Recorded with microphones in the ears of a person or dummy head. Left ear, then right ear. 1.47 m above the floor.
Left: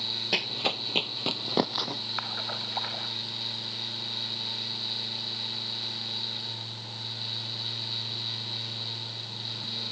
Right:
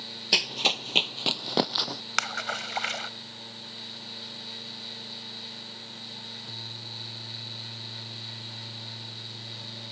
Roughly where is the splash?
Right.